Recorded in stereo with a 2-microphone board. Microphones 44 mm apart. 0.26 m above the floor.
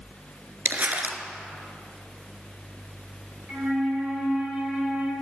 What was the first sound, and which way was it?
Crumpling, 45° right (ahead or behind).